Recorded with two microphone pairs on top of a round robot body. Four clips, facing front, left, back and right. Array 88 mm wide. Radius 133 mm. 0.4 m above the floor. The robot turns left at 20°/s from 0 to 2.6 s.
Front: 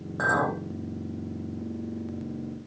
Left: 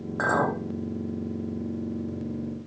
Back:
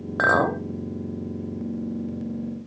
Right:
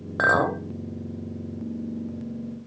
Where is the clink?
155° right, 0.9 m; by 0.6 s 160° right, 0.9 m.